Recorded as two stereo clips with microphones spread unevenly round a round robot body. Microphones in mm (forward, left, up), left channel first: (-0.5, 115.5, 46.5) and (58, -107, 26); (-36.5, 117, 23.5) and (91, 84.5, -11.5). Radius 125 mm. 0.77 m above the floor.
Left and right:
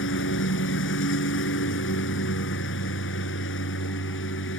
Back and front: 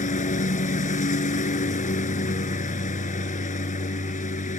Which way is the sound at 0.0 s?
150° left.